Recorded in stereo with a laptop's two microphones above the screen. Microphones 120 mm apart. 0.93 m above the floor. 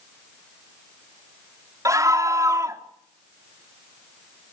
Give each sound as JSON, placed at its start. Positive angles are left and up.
{"t": 1.9, "sound": "a scream", "side_deg": -25, "distance_m": 2.5}